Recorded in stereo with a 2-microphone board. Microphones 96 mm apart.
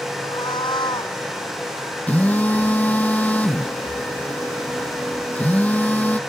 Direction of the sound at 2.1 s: 15° left (ahead or behind).